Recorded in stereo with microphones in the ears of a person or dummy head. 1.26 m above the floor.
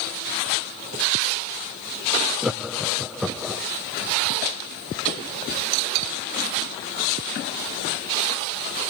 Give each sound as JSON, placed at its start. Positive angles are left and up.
{"t": 2.4, "sound": "laughter", "side_deg": 0, "distance_m": 0.6}